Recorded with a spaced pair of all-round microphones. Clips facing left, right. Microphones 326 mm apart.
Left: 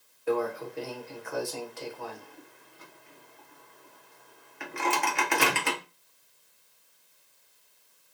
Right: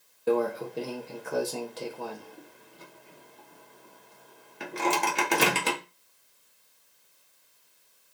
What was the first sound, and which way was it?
A microwave, 45° right (ahead or behind).